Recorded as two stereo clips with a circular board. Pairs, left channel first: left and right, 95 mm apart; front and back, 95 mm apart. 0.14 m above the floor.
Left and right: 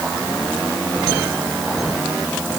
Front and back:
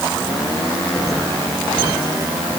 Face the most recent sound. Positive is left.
No sound to turn to.